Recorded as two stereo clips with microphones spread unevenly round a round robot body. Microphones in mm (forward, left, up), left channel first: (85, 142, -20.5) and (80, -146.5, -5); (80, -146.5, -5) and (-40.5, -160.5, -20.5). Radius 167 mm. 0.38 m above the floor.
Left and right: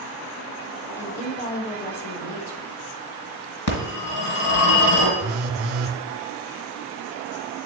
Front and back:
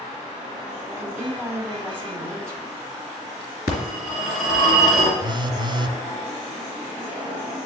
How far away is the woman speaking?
About 1.5 m.